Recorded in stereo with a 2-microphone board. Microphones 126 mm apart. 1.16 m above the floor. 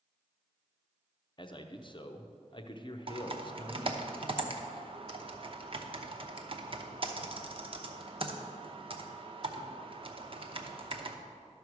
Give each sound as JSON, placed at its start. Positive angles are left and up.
{"t": 1.4, "sound": "a man speaking", "side_deg": 40, "distance_m": 0.7}
{"t": 3.1, "sound": "typing on a keyboard", "side_deg": -45, "distance_m": 0.8}